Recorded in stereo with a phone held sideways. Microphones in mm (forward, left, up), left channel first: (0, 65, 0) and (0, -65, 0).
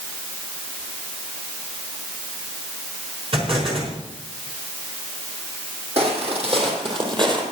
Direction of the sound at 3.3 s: 50° right (ahead or behind).